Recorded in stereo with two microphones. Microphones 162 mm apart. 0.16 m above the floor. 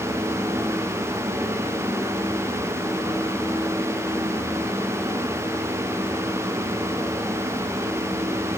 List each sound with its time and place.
Only background noise.